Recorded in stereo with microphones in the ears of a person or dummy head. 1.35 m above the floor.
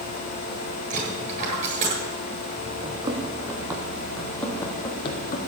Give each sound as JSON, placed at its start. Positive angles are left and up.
{"t": 0.9, "sound": "a dropped coin", "side_deg": -35, "distance_m": 9.0}
{"t": 2.8, "sound": "running footsteps", "side_deg": -25, "distance_m": 3.5}